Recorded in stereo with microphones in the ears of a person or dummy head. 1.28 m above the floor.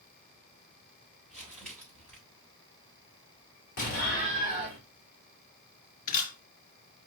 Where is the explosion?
45° left (ahead or behind), 2 m.